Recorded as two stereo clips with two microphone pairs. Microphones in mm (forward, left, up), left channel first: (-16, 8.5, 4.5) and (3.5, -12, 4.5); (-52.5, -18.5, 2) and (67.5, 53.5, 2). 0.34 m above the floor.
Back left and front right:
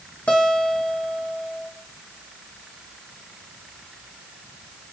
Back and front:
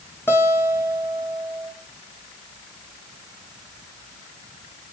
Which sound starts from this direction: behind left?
A guitar, at 0.3 s.